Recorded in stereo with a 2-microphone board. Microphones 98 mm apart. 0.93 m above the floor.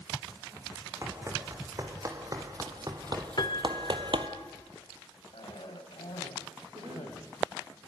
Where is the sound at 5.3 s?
70° left (ahead or behind), 6 m.